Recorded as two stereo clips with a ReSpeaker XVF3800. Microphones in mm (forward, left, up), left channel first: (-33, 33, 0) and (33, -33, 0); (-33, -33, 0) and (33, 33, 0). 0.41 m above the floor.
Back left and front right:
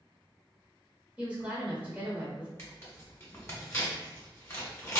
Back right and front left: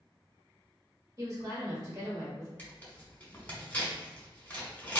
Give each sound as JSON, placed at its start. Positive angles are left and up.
{"t": 1.2, "sound": "a woman speaking", "azimuth_deg": 20, "distance_m": 1.3}
{"t": 2.6, "sound": "tearing paper", "azimuth_deg": 175, "distance_m": 1.2}